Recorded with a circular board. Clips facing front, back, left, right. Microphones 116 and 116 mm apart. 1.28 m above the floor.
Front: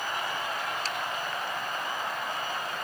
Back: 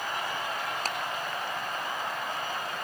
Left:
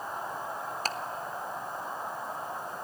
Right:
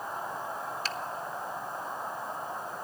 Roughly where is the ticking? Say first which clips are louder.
Back 1 dB, left 3 dB; behind left.